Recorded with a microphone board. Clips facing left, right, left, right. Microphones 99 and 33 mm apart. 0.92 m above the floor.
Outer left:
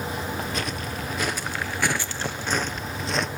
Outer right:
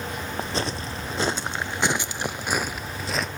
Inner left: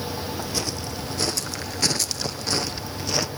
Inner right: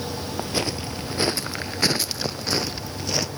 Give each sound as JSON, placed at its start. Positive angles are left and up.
{"t": 0.4, "sound": "footsteps", "side_deg": -30, "distance_m": 1.2}